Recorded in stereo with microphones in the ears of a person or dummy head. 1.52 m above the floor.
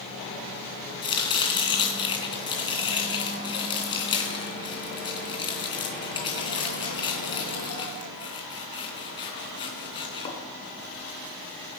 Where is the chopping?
25° left (ahead or behind), 3 m.